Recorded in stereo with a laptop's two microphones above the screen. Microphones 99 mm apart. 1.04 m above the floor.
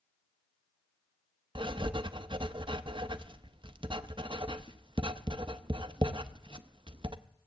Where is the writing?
55° right (ahead or behind), 0.6 m.